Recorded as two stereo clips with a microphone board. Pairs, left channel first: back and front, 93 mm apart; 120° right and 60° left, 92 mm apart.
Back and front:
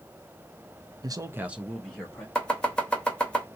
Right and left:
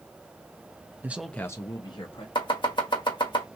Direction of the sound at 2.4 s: 100° right.